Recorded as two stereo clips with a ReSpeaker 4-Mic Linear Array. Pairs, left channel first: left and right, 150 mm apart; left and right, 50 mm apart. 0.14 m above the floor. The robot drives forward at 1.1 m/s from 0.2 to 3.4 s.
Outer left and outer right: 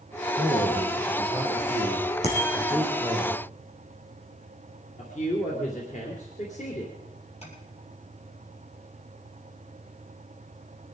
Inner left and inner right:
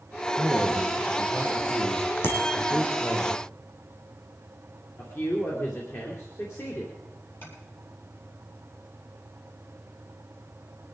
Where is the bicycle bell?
45° left (ahead or behind), 4.5 m; by 2.6 s 40° left (ahead or behind), 4.5 m.